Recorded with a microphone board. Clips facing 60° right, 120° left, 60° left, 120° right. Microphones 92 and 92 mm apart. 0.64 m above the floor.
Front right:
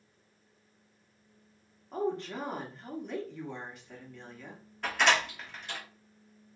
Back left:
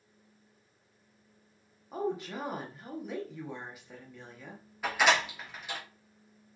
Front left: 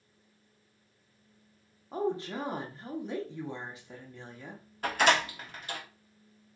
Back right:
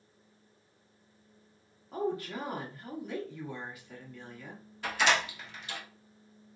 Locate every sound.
1.9 s a woman speaking: 45° left, 1.0 m
4.8 s a door slam: 40° left, 1.0 m